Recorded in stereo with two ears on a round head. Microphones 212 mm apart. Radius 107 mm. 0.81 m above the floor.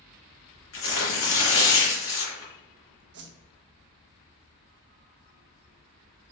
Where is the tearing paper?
80° left, 3 m.